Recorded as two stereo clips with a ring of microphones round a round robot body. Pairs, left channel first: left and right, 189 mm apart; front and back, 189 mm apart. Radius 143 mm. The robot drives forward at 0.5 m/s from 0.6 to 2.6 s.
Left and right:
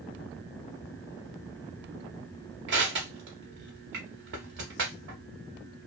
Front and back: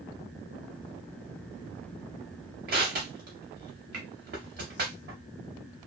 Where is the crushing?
130° right, 0.6 m.